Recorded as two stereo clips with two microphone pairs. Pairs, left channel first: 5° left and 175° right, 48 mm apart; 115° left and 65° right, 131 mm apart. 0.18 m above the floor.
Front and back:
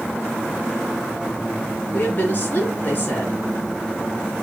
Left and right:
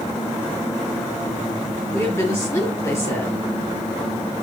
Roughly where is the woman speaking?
Ahead left.